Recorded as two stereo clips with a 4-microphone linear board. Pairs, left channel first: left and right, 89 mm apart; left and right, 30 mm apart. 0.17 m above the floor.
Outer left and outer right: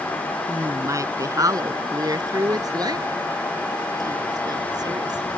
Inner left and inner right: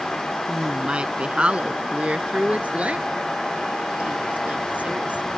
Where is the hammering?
No hammering in this recording.